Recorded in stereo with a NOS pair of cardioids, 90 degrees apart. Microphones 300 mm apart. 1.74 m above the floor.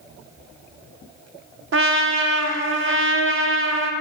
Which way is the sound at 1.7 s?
40° right.